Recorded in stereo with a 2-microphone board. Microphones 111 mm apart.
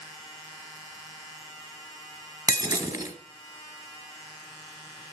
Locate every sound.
2.5 s breaking glass: 35° right (ahead or behind), 1.9 m